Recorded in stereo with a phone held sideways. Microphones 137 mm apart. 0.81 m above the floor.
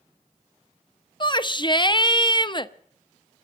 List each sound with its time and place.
1.2 s a shout: 35° left (ahead or behind), 0.6 m